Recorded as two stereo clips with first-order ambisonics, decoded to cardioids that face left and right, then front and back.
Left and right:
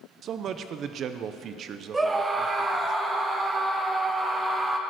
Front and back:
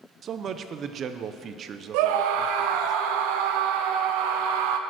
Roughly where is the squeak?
No squeak in this recording.